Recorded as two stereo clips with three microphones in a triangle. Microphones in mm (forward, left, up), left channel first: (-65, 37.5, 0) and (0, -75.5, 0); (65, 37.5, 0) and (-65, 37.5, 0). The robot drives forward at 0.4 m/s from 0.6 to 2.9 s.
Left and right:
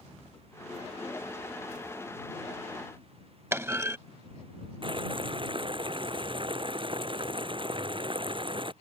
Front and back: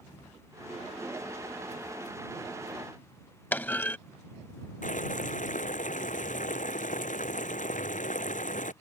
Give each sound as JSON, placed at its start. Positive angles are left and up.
{"t": 3.5, "sound": "a clunk", "azimuth_deg": -45}
{"t": 4.8, "sound": "boiling", "azimuth_deg": -10}